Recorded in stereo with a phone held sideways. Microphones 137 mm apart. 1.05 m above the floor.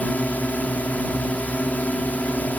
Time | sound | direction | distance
0.0 | a drone | 10° left (ahead or behind) | ?